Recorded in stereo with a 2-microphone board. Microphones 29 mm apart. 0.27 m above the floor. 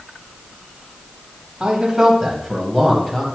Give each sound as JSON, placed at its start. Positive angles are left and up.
{"t": 1.6, "sound": "a man speaking", "side_deg": -25, "distance_m": 1.5}